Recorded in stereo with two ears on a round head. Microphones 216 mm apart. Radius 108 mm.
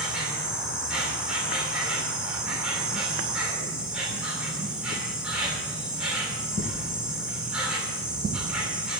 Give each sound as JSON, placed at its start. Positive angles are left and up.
{"t": 0.0, "sound": "an insect", "side_deg": -5, "distance_m": 2.5}